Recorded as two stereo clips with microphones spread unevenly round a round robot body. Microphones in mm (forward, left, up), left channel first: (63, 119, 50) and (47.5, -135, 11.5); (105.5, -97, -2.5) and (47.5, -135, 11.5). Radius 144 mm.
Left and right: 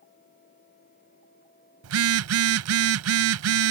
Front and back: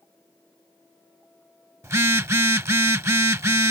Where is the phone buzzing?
90° right.